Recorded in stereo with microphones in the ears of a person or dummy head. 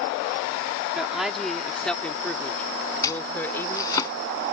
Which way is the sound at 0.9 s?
5° right (ahead or behind).